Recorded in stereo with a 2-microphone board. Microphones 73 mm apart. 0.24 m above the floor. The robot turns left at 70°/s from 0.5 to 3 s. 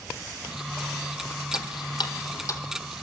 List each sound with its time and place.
1.5 s ticking: 65° left (ahead or behind), 1.4 m; by 2.6 s 40° left (ahead or behind), 1.4 m